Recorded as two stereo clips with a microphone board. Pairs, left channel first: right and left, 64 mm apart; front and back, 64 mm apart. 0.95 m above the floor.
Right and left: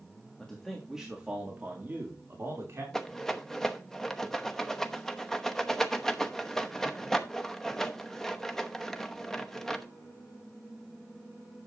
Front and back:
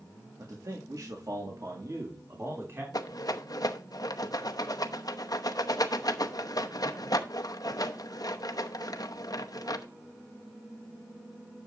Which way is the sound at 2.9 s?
10° right.